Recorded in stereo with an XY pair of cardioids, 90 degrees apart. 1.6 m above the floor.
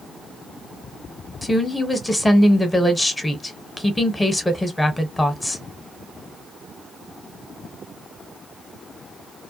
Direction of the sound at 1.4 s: 15° left.